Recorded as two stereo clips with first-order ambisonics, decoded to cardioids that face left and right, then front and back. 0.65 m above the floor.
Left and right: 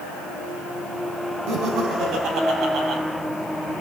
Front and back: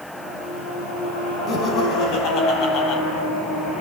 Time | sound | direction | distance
1.5 | laughter | 55° right | 6 m